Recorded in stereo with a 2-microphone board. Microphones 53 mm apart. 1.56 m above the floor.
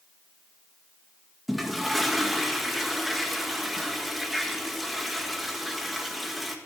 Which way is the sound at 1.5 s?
5° right (ahead or behind).